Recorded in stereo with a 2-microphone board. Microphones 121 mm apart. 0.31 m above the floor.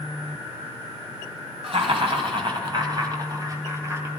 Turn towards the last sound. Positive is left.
turn(degrees=-20)  # may be behind; listen again after turning